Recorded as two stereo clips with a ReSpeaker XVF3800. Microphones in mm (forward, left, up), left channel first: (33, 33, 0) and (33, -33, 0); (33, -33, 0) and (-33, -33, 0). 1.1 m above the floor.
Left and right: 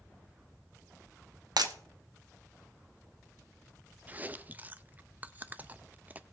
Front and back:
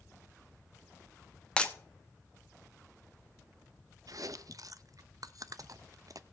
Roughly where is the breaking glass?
Right.